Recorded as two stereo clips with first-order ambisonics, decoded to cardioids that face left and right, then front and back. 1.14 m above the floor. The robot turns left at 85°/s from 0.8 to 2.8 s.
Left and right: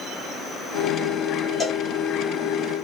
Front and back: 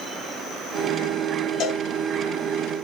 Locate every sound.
1.6 s a cowbell: 20° left, 0.6 m; by 1.8 s straight ahead, 0.6 m